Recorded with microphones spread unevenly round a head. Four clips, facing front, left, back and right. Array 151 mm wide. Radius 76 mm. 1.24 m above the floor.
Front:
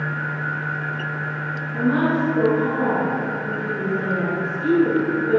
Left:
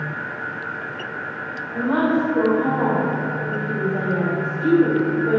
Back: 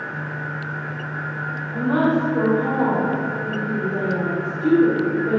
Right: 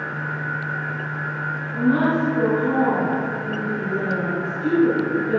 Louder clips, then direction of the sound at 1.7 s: Even, back 1 dB; 130° left.